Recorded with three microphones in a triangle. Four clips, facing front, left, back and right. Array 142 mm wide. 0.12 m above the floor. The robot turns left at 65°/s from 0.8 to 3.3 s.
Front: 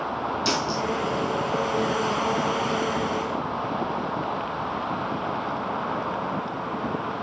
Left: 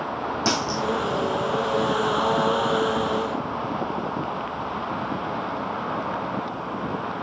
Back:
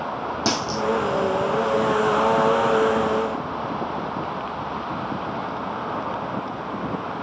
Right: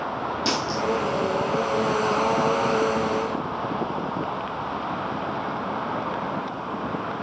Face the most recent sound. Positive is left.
turn(degrees=10)